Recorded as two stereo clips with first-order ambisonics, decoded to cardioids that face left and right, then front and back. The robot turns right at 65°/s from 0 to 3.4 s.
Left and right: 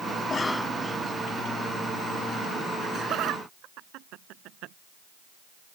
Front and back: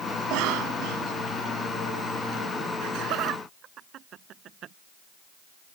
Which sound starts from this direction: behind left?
A cough, at 0.2 s.